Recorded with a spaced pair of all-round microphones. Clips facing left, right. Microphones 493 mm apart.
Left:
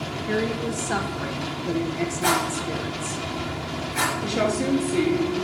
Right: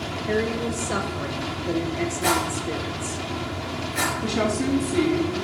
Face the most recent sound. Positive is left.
turn(degrees=-15)  # may be behind; listen again after turning